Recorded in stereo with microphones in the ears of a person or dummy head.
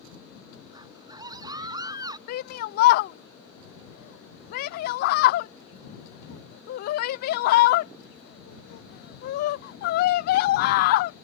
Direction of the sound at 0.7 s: 25° right (ahead or behind).